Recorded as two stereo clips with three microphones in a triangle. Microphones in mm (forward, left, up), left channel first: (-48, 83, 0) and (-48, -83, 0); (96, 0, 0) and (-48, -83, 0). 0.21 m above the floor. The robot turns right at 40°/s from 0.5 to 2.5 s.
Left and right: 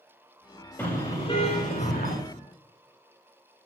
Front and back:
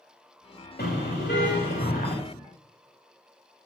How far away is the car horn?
About 8.5 m.